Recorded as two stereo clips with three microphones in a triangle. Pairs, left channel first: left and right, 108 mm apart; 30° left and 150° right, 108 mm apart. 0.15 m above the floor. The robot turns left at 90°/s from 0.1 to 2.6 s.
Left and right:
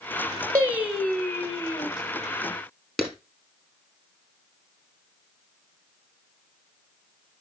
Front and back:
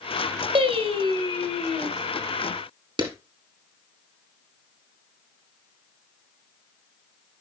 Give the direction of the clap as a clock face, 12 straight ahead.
6 o'clock.